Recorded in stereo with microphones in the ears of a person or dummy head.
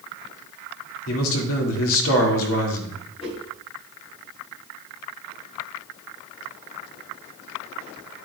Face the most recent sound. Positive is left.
turn(degrees=30)  # may be behind; listen again after turning